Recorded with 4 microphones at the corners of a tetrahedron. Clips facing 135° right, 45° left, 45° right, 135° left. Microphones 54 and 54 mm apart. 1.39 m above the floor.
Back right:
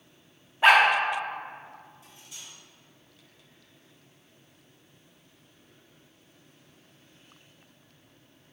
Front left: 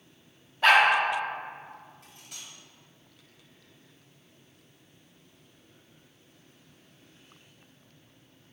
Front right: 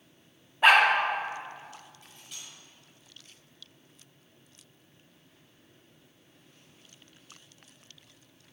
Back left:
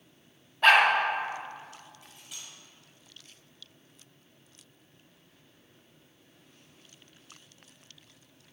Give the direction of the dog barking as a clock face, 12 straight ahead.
3 o'clock.